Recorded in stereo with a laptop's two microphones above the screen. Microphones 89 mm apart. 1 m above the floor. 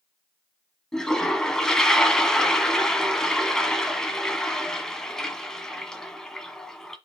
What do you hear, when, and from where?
0.9 s a toilet flushing: 10° left (ahead or behind), 1.5 m